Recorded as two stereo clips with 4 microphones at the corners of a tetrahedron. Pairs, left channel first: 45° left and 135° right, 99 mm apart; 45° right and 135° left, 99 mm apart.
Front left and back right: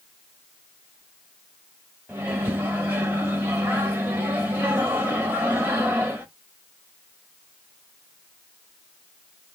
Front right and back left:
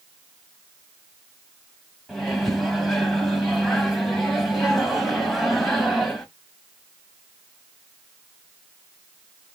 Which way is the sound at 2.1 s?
125° right.